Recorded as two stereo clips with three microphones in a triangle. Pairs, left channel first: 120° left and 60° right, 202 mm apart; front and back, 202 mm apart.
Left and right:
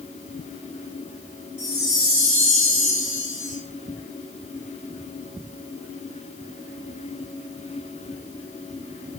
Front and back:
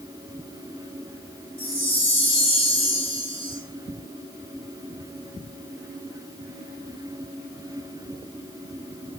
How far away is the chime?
About 6 m.